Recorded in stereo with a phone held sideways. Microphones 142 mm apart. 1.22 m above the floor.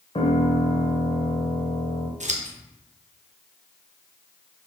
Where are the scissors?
55° right (ahead or behind), 1.0 m.